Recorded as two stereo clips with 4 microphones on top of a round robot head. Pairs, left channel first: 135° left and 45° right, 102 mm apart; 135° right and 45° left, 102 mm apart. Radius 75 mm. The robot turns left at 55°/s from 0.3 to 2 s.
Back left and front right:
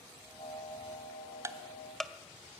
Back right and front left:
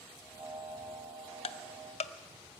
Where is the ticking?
105° right, 0.6 m; by 2.1 s 140° right, 0.6 m.